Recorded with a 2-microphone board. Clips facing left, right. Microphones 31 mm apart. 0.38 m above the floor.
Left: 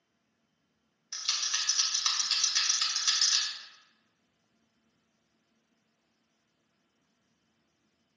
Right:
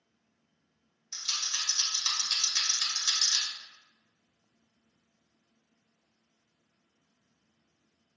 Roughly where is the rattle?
Left.